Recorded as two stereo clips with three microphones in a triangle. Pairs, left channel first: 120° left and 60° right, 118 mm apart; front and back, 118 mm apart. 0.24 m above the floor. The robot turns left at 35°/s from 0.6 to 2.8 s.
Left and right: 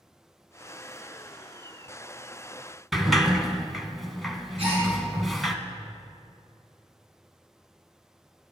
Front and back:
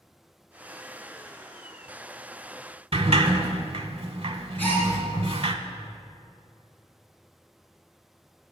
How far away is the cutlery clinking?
I don't hear cutlery clinking.